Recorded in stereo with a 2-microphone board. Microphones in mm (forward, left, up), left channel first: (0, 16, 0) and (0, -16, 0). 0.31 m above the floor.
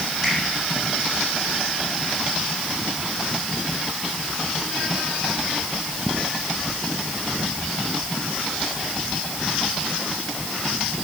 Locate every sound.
0.2 s a finger snap: 20° right (ahead or behind), 8 m